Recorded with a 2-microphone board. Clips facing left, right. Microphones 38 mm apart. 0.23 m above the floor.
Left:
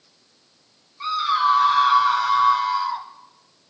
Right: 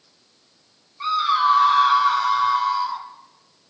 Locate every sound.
1.0 s a scream: 5° right (ahead or behind), 2.5 m; by 3.1 s 10° left (ahead or behind), 1.6 m